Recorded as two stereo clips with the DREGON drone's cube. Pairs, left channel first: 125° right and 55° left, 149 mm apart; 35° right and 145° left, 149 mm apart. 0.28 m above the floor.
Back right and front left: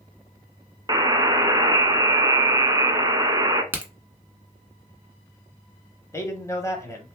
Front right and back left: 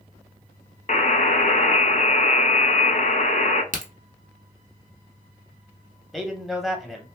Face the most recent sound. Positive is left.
turn(degrees=-130)